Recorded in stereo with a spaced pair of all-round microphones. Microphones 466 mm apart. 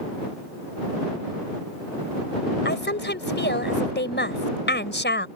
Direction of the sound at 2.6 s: 25° left (ahead or behind).